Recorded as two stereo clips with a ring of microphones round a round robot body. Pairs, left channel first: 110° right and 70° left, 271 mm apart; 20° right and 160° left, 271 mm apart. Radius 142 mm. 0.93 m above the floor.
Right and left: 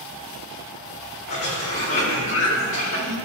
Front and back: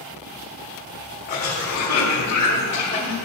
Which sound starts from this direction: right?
A cough, at 1.3 s.